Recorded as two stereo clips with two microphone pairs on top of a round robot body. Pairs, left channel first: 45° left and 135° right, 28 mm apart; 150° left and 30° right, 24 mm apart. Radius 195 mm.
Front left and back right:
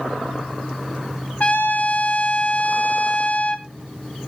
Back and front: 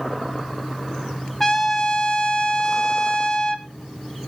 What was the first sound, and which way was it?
A trumpet, 80° left.